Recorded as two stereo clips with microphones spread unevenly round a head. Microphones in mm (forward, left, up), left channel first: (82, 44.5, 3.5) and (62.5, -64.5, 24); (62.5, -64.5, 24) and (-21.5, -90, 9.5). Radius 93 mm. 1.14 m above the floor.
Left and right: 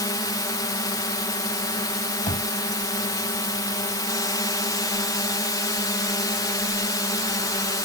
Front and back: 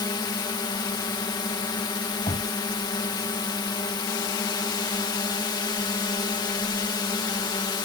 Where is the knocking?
55° left.